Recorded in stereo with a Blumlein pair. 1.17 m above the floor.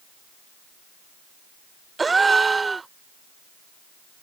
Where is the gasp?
10° right.